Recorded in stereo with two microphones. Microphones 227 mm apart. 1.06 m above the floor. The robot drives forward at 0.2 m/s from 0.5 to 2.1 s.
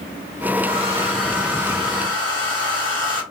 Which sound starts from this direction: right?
A hair dryer, at 0.6 s.